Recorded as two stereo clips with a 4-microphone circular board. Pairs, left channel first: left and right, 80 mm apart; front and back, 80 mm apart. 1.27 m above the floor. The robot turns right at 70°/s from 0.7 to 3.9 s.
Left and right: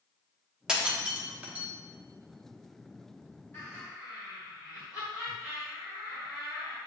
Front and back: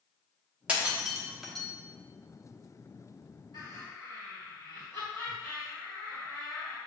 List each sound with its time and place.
0.7 s breaking glass: 150° right, 0.8 m; by 1.7 s 80° right, 0.8 m
3.5 s laughter: 35° left, 1.5 m; by 6.8 s 65° left, 1.5 m